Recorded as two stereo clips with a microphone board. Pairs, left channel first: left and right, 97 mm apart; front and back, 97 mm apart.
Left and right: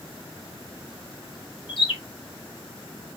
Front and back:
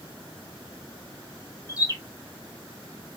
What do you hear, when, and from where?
1.7 s a bird: 55° left, 1.2 m